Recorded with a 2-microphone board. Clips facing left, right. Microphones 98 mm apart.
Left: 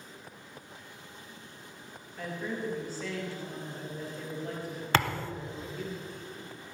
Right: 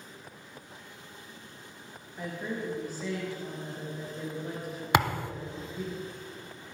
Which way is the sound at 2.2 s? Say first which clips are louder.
Even; 15° right (ahead or behind).